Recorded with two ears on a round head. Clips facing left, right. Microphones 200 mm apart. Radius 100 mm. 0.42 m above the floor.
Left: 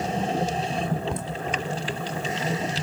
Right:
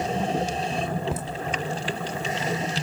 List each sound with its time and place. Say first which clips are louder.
1.1 s laughter: even; 5° right (ahead or behind), 1.4 m